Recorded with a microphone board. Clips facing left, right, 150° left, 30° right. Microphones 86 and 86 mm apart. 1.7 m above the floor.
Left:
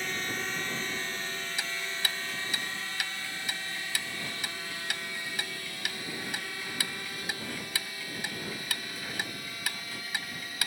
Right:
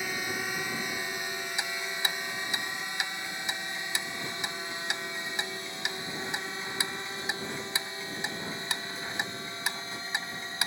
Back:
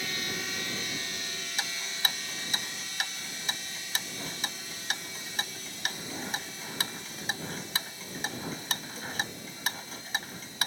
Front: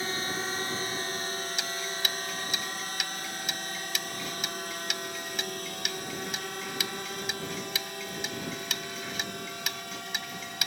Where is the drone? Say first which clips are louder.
Right 1 dB, front 4 dB; 15° right; by 10.7 s 25° right.